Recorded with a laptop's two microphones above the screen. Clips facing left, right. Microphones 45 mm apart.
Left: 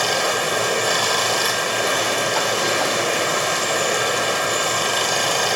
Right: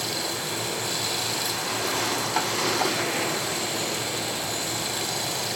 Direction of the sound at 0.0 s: 75° left (ahead or behind).